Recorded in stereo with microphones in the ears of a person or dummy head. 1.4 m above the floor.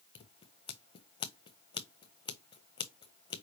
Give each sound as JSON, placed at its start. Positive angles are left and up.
{"t": 0.1, "sound": "scissors", "side_deg": 25, "distance_m": 0.5}